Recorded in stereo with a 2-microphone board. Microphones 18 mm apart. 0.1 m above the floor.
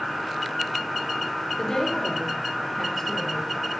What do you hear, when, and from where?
1.6 s a woman speaking: 40° left (ahead or behind), 1.5 m; by 3.5 s 20° left (ahead or behind), 1.8 m